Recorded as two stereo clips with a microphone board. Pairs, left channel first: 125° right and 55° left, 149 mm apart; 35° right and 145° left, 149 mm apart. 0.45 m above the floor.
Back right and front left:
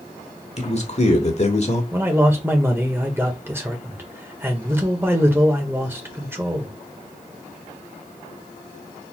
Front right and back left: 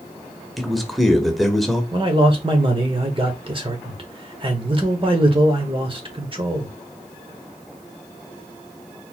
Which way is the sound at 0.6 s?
120° right.